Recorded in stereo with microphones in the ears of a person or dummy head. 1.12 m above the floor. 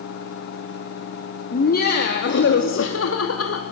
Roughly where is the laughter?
Left.